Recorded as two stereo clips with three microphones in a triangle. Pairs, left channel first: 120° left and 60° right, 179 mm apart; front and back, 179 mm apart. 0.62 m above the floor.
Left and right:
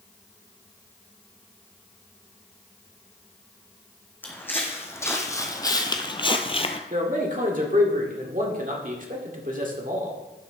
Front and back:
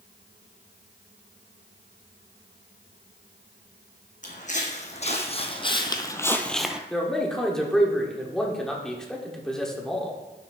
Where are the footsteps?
40° left, 1.7 m; by 6.8 s 100° left, 0.7 m.